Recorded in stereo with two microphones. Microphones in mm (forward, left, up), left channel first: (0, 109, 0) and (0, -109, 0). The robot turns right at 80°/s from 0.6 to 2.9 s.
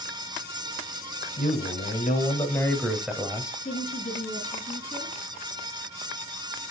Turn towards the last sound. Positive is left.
turn(degrees=30)  # may be behind; listen again after turning